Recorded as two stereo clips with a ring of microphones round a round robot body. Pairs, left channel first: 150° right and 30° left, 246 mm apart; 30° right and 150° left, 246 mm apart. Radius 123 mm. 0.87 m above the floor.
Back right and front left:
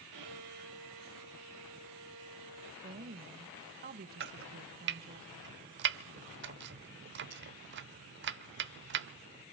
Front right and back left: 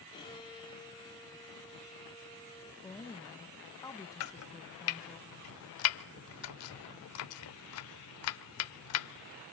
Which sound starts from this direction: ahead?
Chopping, at 4.2 s.